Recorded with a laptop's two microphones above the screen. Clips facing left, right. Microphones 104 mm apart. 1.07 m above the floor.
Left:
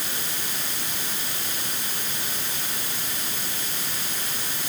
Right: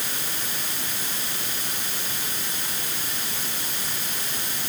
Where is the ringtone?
I don't hear a ringtone.